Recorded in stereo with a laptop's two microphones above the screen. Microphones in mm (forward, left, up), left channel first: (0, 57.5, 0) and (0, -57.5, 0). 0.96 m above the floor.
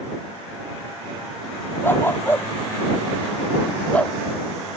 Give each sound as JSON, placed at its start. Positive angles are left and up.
{"t": 1.8, "sound": "a dog barking", "side_deg": 20}